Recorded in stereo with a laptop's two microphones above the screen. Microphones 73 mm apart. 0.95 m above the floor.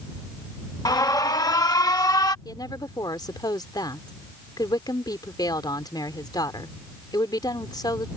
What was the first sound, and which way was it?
An alarm, 65° left (ahead or behind).